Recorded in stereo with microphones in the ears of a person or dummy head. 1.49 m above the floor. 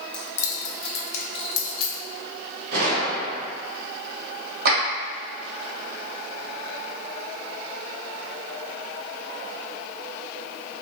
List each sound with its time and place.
0.1 s keys jangling: 5° left (ahead or behind), 0.9 m; by 1.9 s 65° left (ahead or behind), 1.2 m
2.7 s a gunshot: 55° right (ahead or behind), 1.5 m
4.7 s a clap: 55° right (ahead or behind), 1.4 m